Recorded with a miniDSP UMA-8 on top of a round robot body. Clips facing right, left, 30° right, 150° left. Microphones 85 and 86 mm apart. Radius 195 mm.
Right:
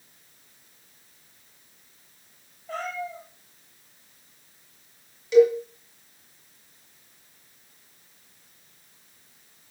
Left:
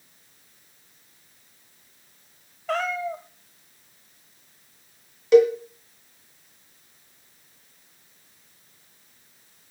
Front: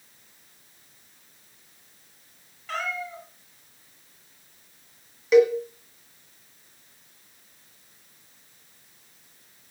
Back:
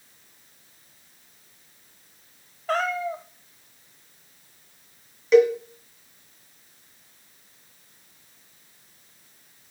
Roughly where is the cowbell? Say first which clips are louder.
Left 1 dB, back 1 dB; ahead left.